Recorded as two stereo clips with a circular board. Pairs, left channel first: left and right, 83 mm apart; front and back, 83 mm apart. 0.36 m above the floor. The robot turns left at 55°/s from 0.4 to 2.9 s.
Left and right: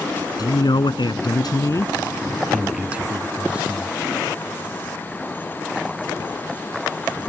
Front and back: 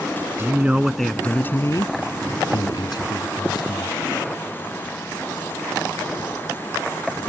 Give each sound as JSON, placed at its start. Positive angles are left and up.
{"t": 0.4, "sound": "a man speaking", "azimuth_deg": 120}